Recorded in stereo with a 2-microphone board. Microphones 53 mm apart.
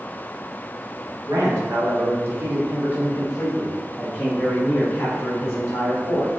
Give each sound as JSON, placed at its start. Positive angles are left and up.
{"t": 1.3, "sound": "a man speaking", "side_deg": -75, "distance_m": 1.6}